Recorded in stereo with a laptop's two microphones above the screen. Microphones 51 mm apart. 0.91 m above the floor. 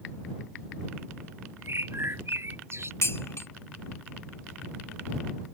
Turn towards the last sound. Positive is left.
turn(degrees=65)  # may be behind; listen again after turning